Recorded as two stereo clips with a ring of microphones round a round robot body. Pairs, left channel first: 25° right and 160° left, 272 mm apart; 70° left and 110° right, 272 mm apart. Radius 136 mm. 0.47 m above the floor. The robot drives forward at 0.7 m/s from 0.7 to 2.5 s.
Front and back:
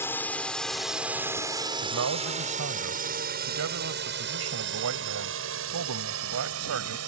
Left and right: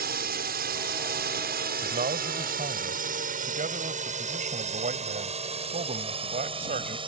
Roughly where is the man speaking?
Behind.